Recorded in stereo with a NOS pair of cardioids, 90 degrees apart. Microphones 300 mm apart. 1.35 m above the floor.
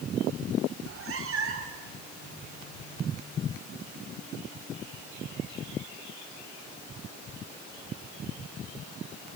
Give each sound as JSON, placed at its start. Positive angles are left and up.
{"t": 0.8, "sound": "a cat meowing", "azimuth_deg": -45, "distance_m": 2.5}